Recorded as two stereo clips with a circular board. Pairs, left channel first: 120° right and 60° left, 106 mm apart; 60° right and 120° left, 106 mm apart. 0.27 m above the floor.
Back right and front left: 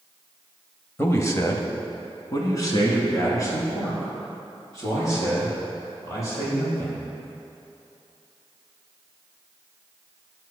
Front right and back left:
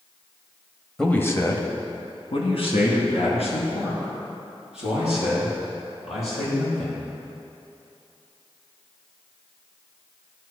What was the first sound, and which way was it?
A man speaking, 135° right.